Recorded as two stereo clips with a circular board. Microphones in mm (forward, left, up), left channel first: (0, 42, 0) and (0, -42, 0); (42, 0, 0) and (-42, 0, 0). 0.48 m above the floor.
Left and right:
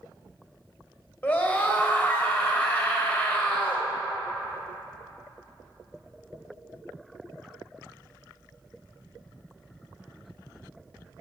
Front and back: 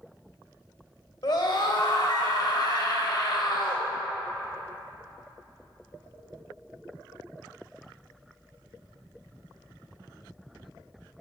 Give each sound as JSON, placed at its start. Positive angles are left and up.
{"t": 1.2, "sound": "a scream", "azimuth_deg": 20, "distance_m": 1.7}